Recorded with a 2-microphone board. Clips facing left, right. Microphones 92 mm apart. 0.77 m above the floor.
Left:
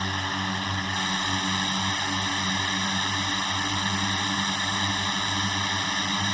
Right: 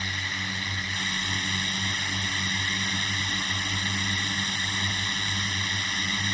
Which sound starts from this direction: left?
A drone, at 0.0 s.